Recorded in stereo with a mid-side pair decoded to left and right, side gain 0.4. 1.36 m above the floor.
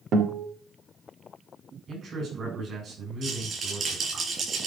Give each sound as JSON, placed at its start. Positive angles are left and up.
{"t": 0.1, "sound": "a guitar", "azimuth_deg": -65, "distance_m": 2.5}
{"t": 1.9, "sound": "a man speaking", "azimuth_deg": -50, "distance_m": 8.0}
{"t": 3.2, "sound": "a rattle", "azimuth_deg": -50, "distance_m": 8.0}